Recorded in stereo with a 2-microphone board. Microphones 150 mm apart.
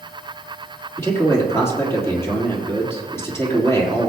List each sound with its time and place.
1.0 s a man speaking: 15° left (ahead or behind), 3.5 m